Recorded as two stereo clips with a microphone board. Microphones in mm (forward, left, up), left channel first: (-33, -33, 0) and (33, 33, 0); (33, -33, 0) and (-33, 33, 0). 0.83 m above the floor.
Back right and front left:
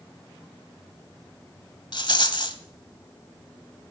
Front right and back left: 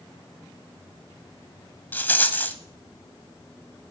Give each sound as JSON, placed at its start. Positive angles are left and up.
{"t": 1.9, "sound": "a rattle", "azimuth_deg": -115, "distance_m": 1.1}